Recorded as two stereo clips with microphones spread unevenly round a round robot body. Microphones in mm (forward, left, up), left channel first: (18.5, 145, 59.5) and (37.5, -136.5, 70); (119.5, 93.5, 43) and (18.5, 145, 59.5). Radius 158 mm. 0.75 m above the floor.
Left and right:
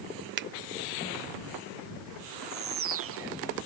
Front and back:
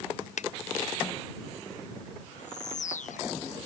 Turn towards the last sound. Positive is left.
turn(degrees=-45)